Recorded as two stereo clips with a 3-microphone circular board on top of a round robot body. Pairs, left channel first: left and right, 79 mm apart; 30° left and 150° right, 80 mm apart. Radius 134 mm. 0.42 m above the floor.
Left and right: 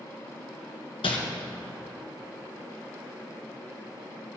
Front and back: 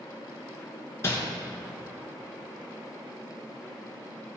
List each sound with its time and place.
1.0 s crumpling: 90° left, 1.8 m